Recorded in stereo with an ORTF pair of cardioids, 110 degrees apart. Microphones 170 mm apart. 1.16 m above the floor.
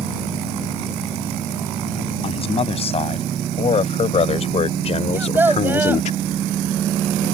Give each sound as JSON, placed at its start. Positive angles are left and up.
{"t": 2.2, "sound": "a man speaking", "azimuth_deg": 35}
{"t": 5.1, "sound": "a child speaking", "azimuth_deg": -10}